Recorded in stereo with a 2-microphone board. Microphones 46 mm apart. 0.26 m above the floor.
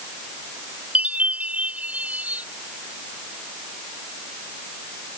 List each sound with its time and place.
0.9 s a chime: 30° right (ahead or behind)